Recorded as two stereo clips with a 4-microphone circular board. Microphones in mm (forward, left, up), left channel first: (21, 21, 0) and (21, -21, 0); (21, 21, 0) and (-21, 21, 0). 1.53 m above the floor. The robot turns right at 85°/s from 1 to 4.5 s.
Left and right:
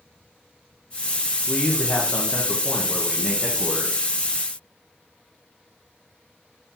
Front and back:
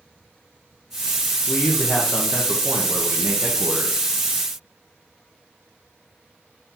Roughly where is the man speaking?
Ahead.